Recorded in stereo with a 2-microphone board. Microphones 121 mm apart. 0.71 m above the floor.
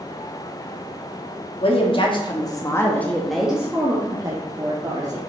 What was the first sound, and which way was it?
A woman speaking, 50° left (ahead or behind).